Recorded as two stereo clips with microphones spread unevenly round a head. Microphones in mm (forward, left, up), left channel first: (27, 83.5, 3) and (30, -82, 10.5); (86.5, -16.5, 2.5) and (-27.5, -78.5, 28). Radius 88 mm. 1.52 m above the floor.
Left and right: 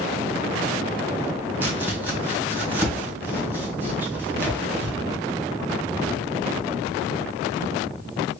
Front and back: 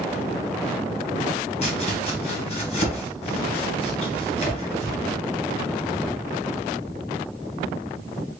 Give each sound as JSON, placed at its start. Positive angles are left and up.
{"t": 1.6, "sound": "chopping", "azimuth_deg": -10, "distance_m": 1.6}